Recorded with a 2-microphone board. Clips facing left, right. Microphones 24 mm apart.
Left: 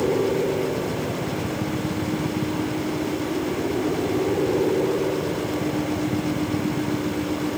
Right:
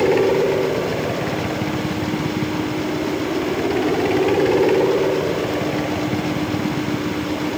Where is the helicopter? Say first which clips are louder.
Right 6 dB; 70° right (ahead or behind); by 7.6 s 75° right (ahead or behind).